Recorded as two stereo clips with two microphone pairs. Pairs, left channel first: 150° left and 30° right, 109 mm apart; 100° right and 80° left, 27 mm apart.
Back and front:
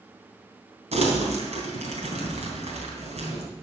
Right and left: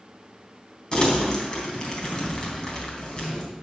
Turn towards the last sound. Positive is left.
turn(degrees=-35)